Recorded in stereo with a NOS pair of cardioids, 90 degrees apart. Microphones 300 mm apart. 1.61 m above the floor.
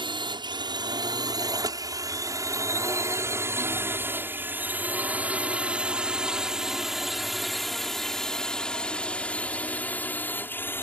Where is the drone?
15° right; by 10.8 s 5° left.